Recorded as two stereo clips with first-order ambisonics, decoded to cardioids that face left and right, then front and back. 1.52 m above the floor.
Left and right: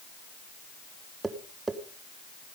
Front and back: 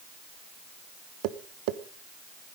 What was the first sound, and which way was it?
Tapping, 170° right.